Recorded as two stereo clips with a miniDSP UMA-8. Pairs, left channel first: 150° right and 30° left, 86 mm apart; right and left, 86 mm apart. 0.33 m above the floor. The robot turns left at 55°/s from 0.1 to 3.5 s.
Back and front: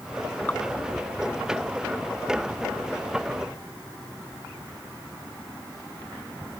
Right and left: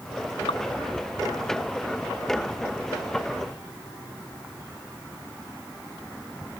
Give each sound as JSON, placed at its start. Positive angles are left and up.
{"t": 0.5, "sound": "dripping", "azimuth_deg": -80}